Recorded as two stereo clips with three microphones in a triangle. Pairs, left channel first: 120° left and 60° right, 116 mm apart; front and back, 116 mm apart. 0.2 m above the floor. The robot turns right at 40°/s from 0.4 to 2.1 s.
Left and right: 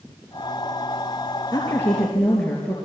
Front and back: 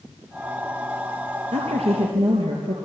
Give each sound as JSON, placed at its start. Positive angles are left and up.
{"t": 1.5, "sound": "a woman speaking", "azimuth_deg": 180, "distance_m": 3.5}